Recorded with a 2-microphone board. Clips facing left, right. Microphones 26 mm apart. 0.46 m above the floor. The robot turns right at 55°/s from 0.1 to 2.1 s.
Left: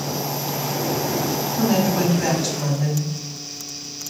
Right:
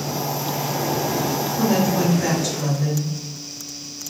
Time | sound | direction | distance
1.5 | a woman speaking | 80° left | 1.6 m